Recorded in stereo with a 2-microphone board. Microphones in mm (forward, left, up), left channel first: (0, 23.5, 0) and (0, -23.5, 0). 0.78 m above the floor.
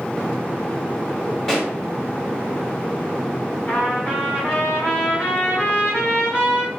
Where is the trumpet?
35° left (ahead or behind), 4 m.